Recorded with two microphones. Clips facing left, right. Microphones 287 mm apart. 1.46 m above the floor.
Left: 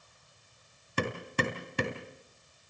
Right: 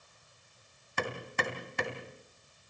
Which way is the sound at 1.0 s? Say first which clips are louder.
Left 4 dB; 40° left (ahead or behind).